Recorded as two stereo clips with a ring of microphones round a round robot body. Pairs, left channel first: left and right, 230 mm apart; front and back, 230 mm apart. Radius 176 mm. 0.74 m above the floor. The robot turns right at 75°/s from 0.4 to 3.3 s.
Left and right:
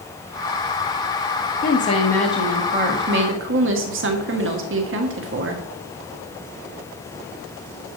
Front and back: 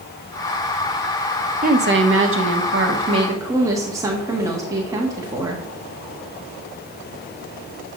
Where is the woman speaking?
130° left, 1.3 m; by 5.7 s 105° right, 1.3 m.